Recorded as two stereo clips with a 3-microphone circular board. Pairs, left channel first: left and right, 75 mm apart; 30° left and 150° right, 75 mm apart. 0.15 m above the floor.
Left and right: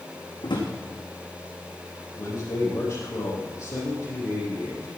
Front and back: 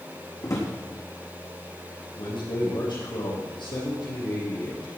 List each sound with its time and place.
0.4 s a drawer: 75° left, 3.5 m
2.2 s a man speaking: 40° left, 6 m